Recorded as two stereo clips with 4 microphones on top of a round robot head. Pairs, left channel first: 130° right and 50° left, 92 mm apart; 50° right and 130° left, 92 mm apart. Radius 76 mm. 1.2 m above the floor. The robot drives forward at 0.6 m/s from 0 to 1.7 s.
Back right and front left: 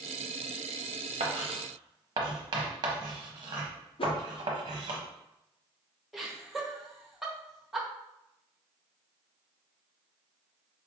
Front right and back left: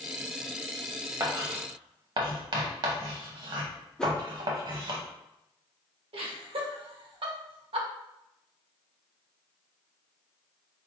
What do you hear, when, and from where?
1.2 s writing: 70° left, 0.8 m; by 5.0 s 95° left, 0.7 m
4.0 s a whoosh: 130° right, 0.6 m
6.1 s laughter: 135° left, 1.1 m